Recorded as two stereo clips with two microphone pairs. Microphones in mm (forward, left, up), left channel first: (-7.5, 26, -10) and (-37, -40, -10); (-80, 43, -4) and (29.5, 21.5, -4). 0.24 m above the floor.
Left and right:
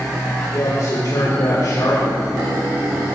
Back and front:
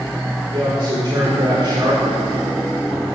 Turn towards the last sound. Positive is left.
turn(degrees=35)